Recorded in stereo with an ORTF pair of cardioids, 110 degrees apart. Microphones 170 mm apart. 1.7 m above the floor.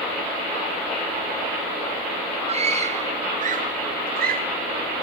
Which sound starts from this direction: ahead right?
A scream, at 2.5 s.